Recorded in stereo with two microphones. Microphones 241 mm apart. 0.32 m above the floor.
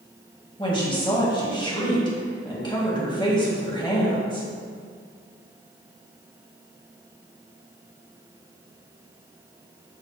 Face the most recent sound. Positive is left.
turn(degrees=20)  # may be behind; listen again after turning